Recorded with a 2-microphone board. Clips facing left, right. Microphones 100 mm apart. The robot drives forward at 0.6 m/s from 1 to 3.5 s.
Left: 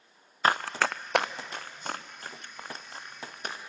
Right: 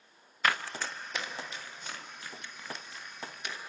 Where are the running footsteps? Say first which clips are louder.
Left 6 dB; 35° left (ahead or behind), 0.6 m; by 3.6 s 40° left (ahead or behind), 2.5 m.